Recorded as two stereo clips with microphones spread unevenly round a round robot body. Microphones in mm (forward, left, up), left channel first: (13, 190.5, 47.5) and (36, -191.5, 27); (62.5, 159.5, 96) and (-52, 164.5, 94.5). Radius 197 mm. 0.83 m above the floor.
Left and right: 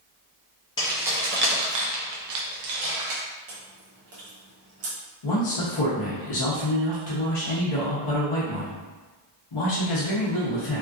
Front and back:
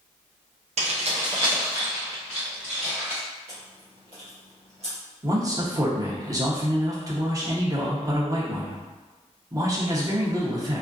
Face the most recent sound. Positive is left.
turn(degrees=115)